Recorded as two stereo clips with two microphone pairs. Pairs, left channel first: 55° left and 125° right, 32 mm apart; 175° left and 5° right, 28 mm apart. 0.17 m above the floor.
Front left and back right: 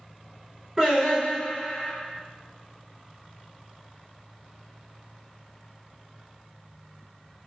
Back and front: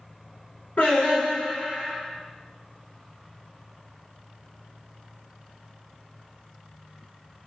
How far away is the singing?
About 1.7 m.